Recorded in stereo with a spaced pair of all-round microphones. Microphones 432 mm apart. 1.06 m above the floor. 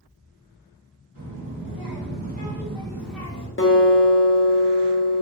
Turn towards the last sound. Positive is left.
turn(degrees=30)  # may be behind; listen again after turning